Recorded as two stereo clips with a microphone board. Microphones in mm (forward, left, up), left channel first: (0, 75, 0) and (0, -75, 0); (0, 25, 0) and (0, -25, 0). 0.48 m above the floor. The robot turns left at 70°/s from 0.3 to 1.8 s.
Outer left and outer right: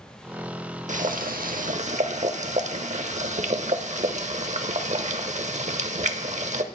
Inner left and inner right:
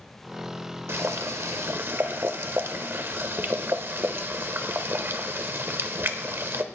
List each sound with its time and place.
0.9 s boiling: 60° right, 0.8 m; by 6.6 s 125° right, 0.8 m